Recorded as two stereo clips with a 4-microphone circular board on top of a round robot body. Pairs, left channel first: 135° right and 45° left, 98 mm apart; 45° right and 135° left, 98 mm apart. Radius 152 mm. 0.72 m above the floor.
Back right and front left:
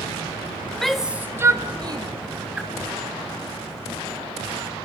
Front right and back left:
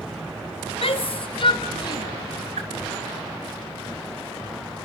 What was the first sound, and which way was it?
A shout, 50° right.